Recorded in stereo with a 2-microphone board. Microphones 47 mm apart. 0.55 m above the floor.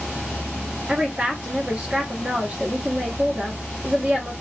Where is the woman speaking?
30° right (ahead or behind), 0.7 m.